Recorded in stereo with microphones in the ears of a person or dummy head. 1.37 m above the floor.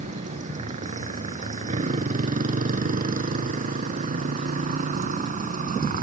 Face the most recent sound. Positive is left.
turn(degrees=-50)  # may be behind; listen again after turning